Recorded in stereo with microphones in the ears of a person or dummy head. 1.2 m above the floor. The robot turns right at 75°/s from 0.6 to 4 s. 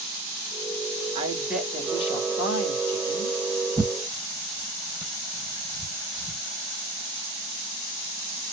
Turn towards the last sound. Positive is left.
turn(degrees=5)  # may be behind; listen again after turning